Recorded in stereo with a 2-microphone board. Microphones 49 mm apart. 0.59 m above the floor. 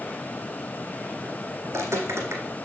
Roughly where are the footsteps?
Right.